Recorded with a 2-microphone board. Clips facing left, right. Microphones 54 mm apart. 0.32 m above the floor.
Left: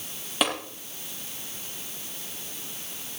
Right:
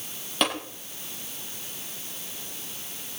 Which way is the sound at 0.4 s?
5° left (ahead or behind).